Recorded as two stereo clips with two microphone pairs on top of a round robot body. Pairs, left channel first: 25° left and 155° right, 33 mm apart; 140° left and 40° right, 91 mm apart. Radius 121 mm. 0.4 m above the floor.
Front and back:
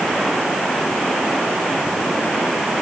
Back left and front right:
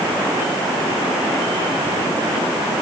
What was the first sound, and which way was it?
Only background noise.